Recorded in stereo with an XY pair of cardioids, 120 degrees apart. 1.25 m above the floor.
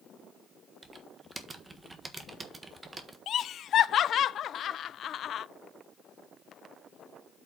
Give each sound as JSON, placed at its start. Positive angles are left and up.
{"t": 0.8, "sound": "typing on a keyboard", "azimuth_deg": -20, "distance_m": 1.3}
{"t": 3.3, "sound": "laughter", "azimuth_deg": 55, "distance_m": 0.6}